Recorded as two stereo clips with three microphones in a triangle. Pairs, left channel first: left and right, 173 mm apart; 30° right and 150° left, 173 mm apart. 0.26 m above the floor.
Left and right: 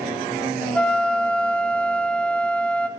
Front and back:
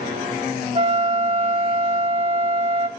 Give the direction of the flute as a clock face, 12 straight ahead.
6 o'clock.